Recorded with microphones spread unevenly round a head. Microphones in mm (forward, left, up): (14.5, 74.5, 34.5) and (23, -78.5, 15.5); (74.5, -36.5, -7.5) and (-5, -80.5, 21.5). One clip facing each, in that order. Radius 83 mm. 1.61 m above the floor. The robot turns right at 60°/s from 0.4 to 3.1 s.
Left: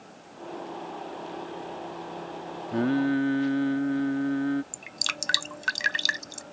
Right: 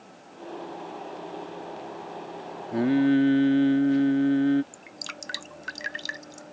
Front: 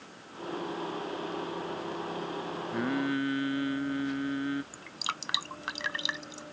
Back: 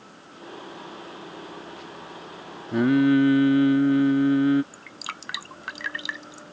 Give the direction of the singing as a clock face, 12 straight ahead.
6 o'clock.